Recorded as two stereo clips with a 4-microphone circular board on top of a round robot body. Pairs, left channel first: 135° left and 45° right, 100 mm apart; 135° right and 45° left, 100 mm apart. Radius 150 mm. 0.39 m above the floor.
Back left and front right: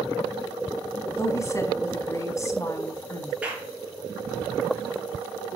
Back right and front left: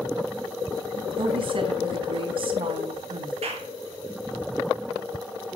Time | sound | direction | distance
1.2 | a woman speaking | 75° left | 4.5 m
3.4 | a clap | 35° left | 7.5 m